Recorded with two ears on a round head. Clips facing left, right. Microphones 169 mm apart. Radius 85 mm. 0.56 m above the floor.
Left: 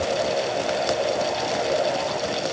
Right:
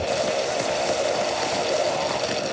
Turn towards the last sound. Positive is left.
No sound to turn to.